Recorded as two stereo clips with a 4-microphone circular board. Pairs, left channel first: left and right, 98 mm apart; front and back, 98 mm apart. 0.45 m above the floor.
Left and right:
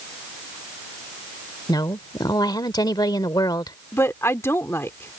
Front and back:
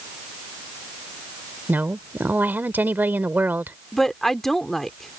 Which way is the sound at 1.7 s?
115° left.